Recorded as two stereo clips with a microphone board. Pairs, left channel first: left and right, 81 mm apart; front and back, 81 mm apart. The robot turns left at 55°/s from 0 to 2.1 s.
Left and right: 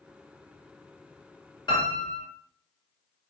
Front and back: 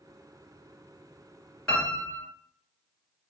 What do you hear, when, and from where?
1.7 s a piano: 80° left, 2 m; by 2.2 s 55° left, 2 m